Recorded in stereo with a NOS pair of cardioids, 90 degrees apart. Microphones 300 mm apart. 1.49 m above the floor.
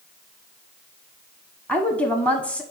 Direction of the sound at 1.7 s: 5° left.